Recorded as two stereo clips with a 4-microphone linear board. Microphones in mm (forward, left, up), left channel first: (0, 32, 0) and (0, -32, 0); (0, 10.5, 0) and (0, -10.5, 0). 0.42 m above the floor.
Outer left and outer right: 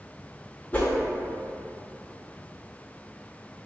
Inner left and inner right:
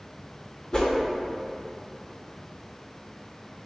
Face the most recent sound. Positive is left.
turn(degrees=25)  # may be behind; listen again after turning